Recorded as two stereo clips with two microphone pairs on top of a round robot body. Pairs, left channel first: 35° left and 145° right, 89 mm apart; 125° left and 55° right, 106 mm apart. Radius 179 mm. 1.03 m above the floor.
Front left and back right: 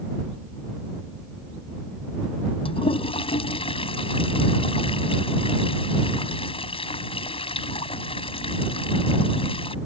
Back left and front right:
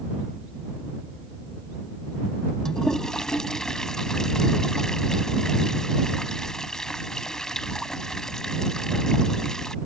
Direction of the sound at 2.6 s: 40° left.